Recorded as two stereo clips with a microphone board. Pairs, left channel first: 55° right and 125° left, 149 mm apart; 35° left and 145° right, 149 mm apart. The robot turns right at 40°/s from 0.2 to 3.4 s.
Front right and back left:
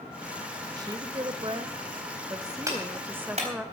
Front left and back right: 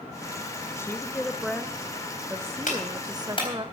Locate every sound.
0.8 s a woman speaking: 90° left, 0.8 m; by 3.7 s 165° right, 0.8 m
2.7 s a clap: 55° left, 4 m; by 3.5 s 85° left, 4 m